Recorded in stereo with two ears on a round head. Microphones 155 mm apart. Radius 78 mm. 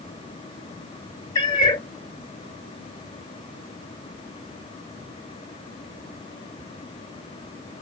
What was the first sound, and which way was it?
A cat meowing, 25° left (ahead or behind).